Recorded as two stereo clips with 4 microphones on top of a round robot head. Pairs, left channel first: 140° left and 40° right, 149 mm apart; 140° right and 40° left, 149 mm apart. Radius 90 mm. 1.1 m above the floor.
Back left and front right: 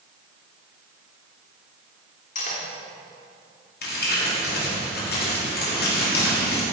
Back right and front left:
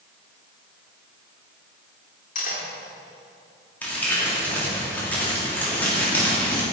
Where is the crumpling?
140° left, 3 m.